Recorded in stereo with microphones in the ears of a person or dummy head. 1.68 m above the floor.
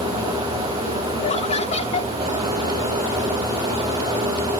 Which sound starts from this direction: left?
Laughter, at 1.2 s.